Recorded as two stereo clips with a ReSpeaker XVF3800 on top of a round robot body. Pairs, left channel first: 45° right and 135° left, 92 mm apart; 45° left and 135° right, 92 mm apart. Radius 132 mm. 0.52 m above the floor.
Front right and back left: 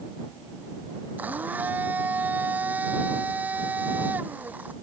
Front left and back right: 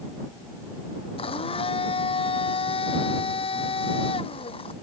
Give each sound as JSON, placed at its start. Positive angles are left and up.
{"t": 1.2, "sound": "a blender", "azimuth_deg": 60}